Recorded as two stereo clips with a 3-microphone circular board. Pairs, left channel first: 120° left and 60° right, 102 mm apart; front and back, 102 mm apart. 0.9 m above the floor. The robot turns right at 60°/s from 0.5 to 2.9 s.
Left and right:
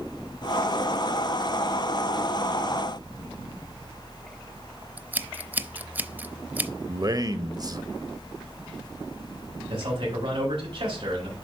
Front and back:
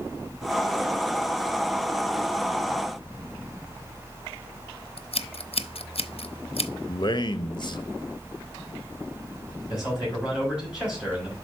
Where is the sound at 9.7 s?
95° right, 5.5 m.